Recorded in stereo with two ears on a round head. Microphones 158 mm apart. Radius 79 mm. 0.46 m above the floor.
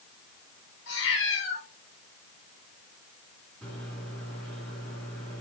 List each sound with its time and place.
0.9 s a cat meowing: 90° left, 2.5 m
3.6 s a microwave: 5° left (ahead or behind), 3 m